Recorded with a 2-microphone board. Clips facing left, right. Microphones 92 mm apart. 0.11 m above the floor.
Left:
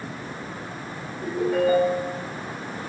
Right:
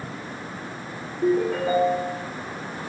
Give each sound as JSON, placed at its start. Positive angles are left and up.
{"t": 1.2, "sound": "a ringtone", "side_deg": -40, "distance_m": 1.9}